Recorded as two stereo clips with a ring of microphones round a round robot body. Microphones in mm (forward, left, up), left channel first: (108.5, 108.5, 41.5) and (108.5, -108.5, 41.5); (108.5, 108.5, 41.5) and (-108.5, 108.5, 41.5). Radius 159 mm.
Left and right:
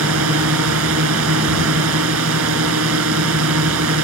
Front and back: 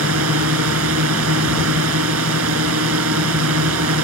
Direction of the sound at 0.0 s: 135° right.